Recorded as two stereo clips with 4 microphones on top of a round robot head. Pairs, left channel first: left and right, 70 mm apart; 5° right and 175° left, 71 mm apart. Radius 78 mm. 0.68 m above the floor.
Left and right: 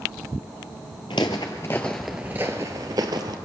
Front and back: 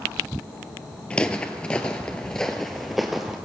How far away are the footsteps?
About 0.8 m.